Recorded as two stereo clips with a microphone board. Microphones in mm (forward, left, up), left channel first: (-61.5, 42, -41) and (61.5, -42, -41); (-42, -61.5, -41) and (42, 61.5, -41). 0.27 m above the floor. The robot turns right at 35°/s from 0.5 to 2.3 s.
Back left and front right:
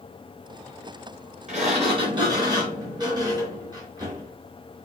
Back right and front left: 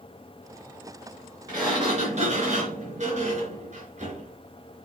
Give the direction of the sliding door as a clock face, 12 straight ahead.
12 o'clock.